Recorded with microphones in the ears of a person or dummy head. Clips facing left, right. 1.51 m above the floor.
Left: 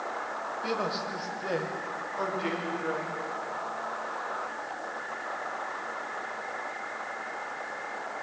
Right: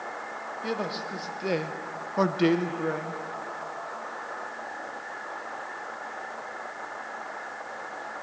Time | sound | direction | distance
0.6 | a man speaking | 10° right (ahead or behind) | 2 m